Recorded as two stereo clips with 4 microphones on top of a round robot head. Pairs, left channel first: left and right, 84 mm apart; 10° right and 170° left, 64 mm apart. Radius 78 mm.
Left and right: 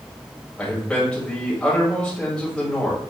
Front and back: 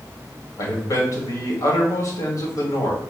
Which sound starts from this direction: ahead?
A man speaking, at 0.6 s.